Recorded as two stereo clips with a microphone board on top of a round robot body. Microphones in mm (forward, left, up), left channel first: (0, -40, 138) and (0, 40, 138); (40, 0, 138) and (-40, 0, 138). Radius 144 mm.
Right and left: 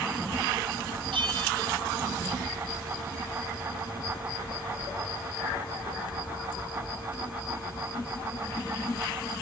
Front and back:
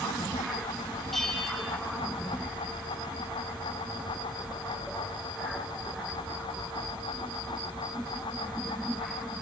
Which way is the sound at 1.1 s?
85° left.